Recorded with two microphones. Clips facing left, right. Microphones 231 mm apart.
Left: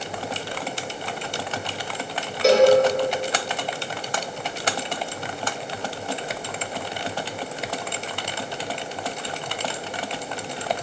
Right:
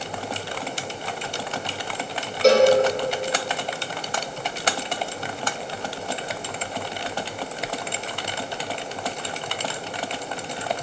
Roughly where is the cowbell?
Centre.